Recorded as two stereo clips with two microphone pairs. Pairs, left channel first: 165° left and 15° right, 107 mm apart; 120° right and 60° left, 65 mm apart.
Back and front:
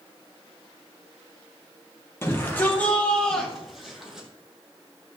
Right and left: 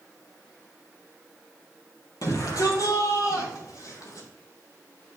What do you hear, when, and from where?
2.2 s a shout: 130° right, 4.5 m; by 4.3 s 100° right, 5.5 m